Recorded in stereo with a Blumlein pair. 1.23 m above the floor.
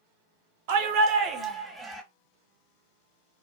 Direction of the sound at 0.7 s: 50° right.